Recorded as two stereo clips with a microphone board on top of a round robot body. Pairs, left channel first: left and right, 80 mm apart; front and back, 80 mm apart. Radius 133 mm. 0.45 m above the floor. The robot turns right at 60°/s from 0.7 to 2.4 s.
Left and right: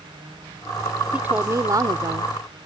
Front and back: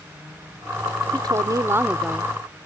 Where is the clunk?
I don't hear a clunk.